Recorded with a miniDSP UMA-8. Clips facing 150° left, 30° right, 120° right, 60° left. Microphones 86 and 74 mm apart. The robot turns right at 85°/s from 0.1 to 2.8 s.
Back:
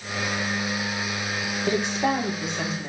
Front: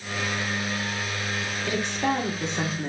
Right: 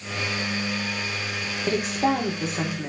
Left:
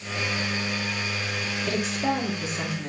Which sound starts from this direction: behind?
A woman speaking, at 1.7 s.